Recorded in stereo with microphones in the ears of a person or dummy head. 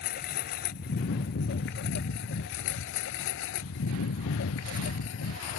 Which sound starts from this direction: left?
A lawn mower, at 0.0 s.